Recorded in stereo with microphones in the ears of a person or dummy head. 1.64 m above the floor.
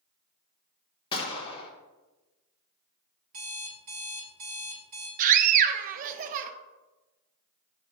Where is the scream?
50° right (ahead or behind), 0.6 m.